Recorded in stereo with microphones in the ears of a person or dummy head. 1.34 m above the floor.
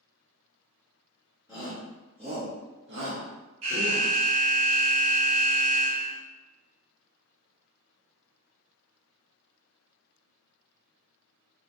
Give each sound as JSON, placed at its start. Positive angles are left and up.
{"t": 1.5, "sound": "a shout", "side_deg": 0, "distance_m": 1.2}
{"t": 3.6, "sound": "an alarm", "side_deg": -40, "distance_m": 1.3}